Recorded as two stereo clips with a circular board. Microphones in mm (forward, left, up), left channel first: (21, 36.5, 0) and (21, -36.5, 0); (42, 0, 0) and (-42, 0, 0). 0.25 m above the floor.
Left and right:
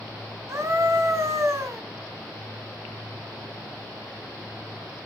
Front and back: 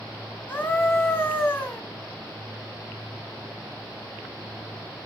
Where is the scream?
60° right, 2 m.